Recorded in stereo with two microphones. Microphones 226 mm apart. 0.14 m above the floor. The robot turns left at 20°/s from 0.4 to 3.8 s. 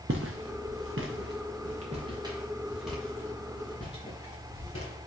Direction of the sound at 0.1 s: 65° right (ahead or behind).